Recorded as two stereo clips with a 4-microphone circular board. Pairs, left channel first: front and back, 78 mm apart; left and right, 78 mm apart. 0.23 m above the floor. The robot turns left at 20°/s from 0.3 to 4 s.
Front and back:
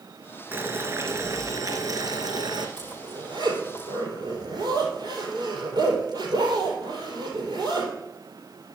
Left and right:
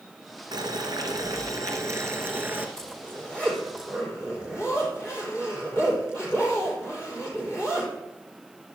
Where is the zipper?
175° left, 4.5 m; by 7.9 s 150° left, 4.5 m.